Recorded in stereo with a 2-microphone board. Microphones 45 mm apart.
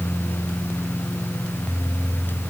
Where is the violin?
I don't hear a violin.